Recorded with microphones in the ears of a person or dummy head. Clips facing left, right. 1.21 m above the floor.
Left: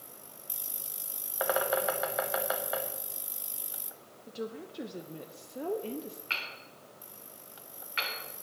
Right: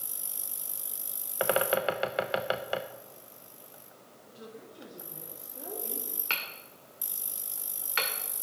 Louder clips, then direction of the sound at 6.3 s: Right 2 dB; 60° right (ahead or behind).